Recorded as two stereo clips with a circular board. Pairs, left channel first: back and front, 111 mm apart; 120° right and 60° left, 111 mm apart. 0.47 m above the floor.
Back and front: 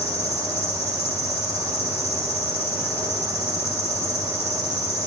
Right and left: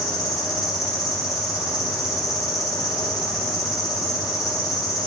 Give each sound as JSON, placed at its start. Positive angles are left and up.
{"t": 0.0, "sound": "an insect", "azimuth_deg": -175, "distance_m": 2.0}